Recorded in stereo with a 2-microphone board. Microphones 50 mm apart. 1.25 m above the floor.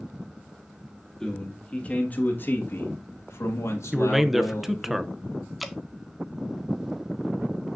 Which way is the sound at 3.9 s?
5° right (ahead or behind).